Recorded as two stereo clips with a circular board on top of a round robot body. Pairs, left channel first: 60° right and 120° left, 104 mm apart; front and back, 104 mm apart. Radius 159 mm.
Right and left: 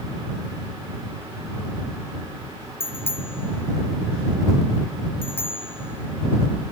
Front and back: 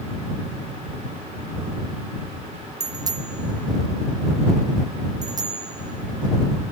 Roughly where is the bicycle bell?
Behind right.